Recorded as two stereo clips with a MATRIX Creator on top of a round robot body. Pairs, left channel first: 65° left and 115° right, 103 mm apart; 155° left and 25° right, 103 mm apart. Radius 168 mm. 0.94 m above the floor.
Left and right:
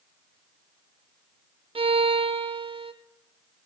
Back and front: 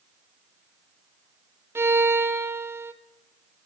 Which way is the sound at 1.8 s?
90° right.